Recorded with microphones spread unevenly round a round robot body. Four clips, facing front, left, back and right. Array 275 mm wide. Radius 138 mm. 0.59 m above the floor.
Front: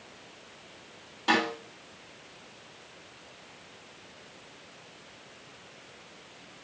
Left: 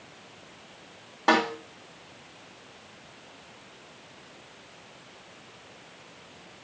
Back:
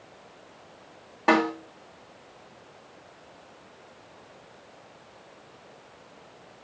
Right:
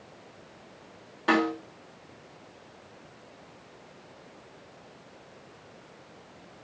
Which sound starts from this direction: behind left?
A snare drum, at 1.3 s.